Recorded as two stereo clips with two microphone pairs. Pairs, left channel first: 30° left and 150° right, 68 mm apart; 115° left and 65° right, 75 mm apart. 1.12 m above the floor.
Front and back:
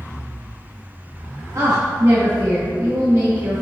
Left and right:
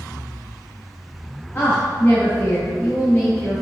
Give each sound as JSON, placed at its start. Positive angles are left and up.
{"t": 1.6, "sound": "a woman speaking", "azimuth_deg": 175, "distance_m": 1.4}